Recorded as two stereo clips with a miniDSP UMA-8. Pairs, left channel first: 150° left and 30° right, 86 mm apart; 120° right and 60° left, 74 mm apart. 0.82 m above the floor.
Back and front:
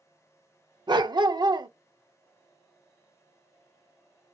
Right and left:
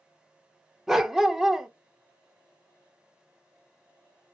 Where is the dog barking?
20° right, 0.5 m.